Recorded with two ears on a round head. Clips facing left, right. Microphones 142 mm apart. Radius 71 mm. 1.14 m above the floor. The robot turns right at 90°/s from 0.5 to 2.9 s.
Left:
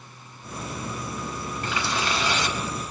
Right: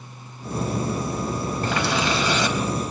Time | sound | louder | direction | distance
1.6 | a running tap | right 4 dB | 150° right | 4 m